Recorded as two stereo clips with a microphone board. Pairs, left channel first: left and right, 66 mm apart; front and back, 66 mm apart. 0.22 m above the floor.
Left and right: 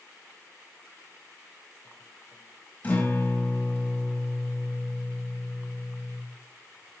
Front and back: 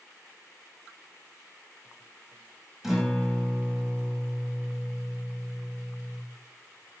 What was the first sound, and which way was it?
A guitar, 100° left.